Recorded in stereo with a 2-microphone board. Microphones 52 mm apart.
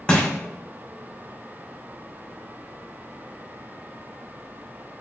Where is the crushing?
20° left (ahead or behind), 2.5 m.